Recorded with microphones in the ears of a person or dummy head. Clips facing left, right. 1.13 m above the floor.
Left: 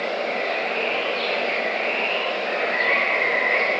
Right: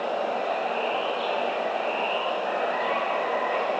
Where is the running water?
35° left (ahead or behind).